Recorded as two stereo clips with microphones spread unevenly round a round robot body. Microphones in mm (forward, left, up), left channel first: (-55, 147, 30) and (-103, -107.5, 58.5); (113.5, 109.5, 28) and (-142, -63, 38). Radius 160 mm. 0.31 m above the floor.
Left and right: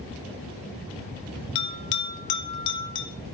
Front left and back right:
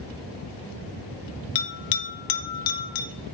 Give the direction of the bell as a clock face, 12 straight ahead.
10 o'clock.